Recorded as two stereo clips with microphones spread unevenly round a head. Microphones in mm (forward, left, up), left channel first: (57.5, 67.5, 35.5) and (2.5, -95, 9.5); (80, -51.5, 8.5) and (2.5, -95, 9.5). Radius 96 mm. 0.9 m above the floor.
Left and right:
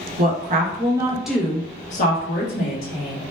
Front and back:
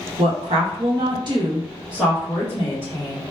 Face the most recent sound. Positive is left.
turn(degrees=90)